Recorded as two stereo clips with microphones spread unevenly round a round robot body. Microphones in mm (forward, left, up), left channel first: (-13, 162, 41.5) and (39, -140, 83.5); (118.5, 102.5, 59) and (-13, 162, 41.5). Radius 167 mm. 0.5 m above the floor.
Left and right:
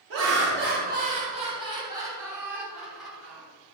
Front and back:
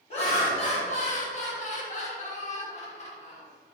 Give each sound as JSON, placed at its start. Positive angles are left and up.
{"t": 0.1, "sound": "laughter", "azimuth_deg": -45, "distance_m": 1.4}